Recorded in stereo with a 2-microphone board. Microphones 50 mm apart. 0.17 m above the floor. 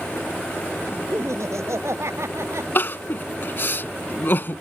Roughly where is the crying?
Left.